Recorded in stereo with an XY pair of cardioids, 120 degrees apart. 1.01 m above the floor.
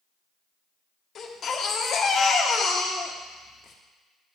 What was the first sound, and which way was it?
A baby crying, 50° left.